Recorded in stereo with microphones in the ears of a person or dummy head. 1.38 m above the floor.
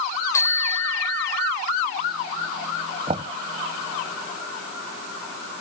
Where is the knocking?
30° right (ahead or behind).